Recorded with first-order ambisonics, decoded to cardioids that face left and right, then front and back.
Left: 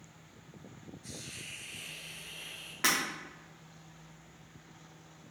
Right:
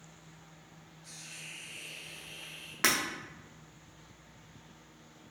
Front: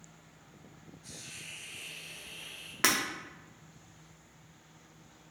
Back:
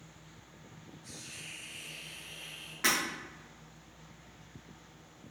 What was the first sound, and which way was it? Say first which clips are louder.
A hiss: left 1 dB, even; 70° left.